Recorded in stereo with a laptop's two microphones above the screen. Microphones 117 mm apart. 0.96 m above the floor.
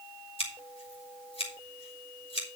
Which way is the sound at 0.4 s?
55° left (ahead or behind).